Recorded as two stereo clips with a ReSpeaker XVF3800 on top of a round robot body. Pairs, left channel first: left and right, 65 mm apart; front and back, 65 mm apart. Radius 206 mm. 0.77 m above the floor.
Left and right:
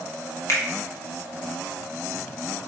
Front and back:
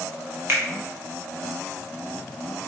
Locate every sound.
0.5 s a finger snap: 130° left, 2.5 m